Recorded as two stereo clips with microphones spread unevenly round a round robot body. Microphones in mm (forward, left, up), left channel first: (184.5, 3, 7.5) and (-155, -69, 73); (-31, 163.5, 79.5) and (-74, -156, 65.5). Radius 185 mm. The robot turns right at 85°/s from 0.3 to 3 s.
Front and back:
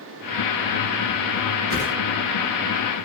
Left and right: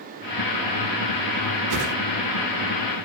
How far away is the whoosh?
About 1.8 m.